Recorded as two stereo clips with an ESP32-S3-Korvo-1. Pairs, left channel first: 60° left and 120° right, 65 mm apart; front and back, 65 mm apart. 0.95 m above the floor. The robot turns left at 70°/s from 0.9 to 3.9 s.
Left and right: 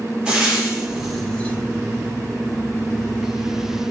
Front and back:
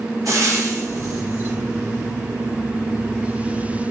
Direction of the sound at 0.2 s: 165° left.